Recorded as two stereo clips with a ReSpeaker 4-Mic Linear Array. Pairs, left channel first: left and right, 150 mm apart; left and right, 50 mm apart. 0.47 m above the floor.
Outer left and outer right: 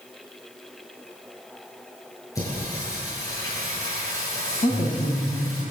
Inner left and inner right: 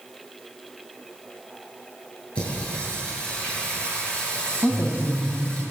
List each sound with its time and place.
2.4 s singing: 20° left (ahead or behind), 9.5 m
4.6 s a woman speaking: 75° left (ahead or behind), 3.5 m